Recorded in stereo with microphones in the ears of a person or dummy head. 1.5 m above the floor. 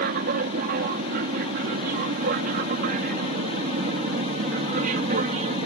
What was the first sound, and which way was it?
An aircraft, 50° right (ahead or behind).